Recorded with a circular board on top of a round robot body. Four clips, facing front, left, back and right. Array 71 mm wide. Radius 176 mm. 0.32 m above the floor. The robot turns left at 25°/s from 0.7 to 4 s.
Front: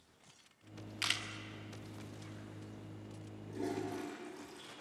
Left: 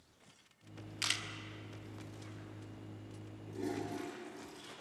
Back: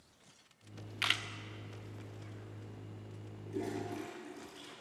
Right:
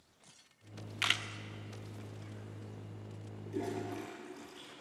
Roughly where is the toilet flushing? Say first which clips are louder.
Right 1 dB, even; behind right.